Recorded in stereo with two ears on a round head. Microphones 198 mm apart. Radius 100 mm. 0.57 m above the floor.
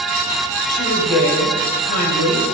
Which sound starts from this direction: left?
A woman speaking, at 0.7 s.